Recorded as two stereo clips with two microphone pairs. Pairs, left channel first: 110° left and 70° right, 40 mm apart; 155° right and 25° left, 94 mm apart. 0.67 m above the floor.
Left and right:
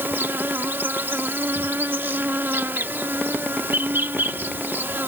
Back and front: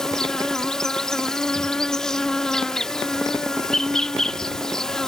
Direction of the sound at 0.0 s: 75° right.